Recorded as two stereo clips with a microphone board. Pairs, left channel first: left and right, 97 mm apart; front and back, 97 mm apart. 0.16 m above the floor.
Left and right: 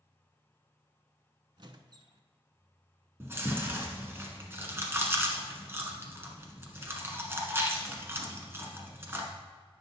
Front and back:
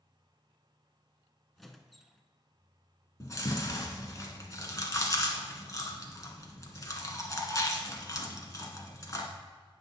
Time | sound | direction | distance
1.6 | a squeak | 90° right | 0.6 m
3.2 | chewing | 35° right | 1.4 m